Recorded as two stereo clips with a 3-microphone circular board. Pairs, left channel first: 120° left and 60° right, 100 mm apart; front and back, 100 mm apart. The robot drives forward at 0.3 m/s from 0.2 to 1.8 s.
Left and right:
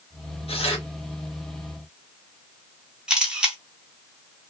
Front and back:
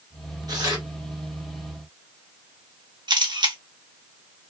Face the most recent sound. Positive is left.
turn(degrees=-140)